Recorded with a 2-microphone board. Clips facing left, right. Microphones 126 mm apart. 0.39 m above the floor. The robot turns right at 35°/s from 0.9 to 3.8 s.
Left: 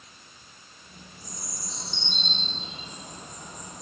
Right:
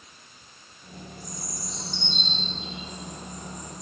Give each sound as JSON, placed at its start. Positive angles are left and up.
{"t": 1.2, "sound": "a bird", "side_deg": 45, "distance_m": 3.0}